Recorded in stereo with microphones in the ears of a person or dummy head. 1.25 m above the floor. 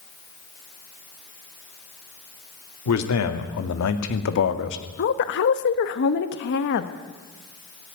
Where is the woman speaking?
55° left (ahead or behind), 1.4 m.